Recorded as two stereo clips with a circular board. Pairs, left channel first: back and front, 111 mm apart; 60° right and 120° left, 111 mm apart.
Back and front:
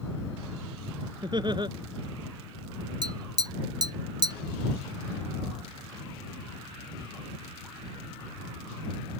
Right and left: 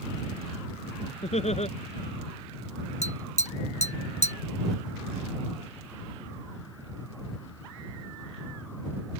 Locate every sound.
1.2 s laughter: 45° right
3.0 s tapping: 55° right